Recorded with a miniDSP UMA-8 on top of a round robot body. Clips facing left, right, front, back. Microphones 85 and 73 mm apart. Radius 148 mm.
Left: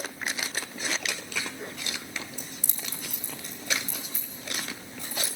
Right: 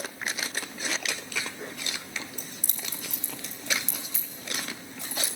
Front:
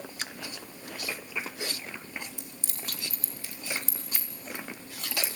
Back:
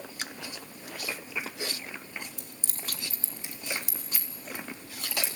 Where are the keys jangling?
135° right, 1.5 m; by 5.3 s 90° right, 3.5 m.